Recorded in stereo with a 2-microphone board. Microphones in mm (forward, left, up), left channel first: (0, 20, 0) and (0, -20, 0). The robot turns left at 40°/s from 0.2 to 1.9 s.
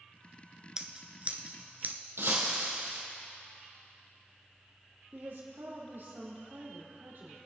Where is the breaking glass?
75° right (ahead or behind), 2.5 m.